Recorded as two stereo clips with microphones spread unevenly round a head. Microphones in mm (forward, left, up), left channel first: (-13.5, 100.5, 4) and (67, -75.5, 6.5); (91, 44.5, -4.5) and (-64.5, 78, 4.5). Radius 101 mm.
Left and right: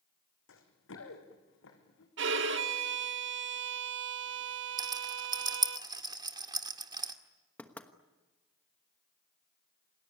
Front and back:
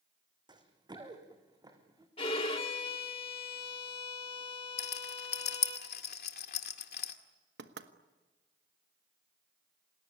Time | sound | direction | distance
0.5 | running footsteps | 110° left | 3.5 m
2.2 | a violin | 75° right | 1.3 m
4.8 | a rattle | straight ahead | 2.0 m
7.6 | knocking | 165° right | 1.2 m